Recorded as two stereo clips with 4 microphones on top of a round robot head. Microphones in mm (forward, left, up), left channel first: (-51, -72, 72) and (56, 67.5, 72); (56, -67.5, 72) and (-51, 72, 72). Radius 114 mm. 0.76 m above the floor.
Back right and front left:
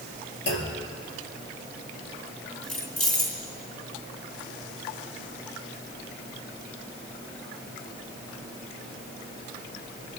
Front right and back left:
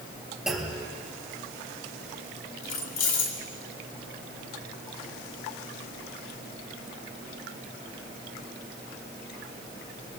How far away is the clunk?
About 4 m.